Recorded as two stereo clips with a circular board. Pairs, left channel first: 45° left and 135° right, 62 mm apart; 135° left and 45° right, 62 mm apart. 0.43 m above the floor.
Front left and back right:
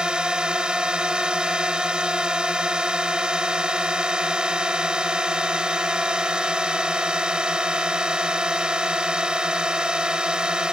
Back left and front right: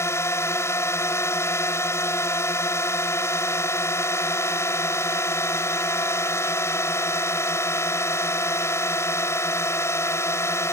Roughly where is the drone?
Behind left.